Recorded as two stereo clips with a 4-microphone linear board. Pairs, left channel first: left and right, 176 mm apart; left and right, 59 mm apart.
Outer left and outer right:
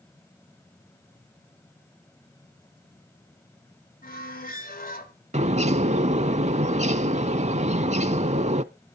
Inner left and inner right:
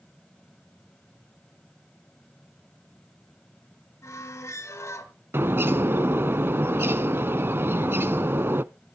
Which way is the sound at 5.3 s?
40° right (ahead or behind).